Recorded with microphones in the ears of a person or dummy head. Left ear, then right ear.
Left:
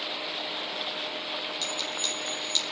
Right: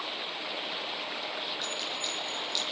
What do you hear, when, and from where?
1.6 s a clink: 25° left (ahead or behind), 1.8 m